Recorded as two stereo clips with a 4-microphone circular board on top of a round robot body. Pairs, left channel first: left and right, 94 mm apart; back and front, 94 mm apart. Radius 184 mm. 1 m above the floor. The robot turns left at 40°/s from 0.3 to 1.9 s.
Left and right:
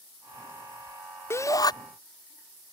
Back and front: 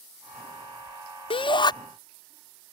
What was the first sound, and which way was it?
A shout, 155° left.